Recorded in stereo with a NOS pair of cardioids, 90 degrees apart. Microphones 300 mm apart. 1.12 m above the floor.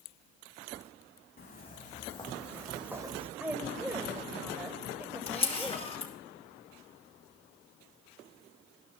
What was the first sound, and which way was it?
Footsteps, 35° left.